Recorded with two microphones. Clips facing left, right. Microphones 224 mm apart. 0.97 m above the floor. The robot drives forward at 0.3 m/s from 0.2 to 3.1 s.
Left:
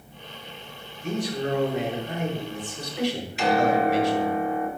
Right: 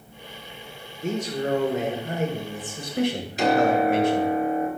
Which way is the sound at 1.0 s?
50° right (ahead or behind).